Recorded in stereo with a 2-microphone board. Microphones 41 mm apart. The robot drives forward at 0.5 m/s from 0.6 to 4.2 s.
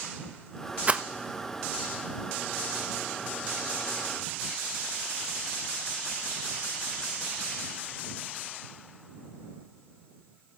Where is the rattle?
30° right (ahead or behind), 0.9 m.